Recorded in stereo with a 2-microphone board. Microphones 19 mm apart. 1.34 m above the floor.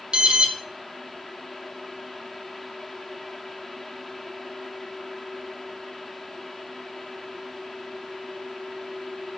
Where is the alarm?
55° right (ahead or behind), 2.5 m.